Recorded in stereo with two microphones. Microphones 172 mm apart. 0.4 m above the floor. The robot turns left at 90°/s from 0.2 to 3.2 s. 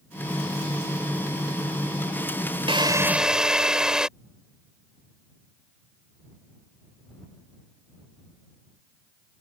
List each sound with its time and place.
2.7 s a drill: 125° right; by 4.1 s 175° right